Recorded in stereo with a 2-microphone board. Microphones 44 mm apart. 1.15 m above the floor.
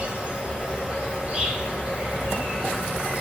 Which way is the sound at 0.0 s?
30° right (ahead or behind).